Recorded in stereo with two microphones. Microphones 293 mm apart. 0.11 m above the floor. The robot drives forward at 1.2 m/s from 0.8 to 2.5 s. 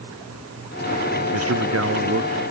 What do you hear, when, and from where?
1.3 s a man speaking: 55° right (ahead or behind)